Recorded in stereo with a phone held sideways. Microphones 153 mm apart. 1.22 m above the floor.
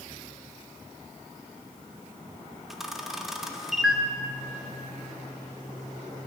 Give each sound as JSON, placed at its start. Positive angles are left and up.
{"t": 2.7, "sound": "a camera shutter", "side_deg": 0, "distance_m": 0.8}